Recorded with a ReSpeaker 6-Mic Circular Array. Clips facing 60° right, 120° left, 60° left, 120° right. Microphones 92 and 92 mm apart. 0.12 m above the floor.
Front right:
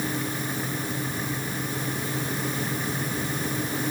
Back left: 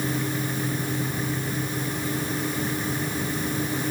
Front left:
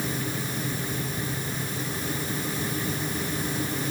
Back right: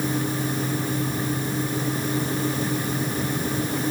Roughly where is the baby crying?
No baby crying in this recording.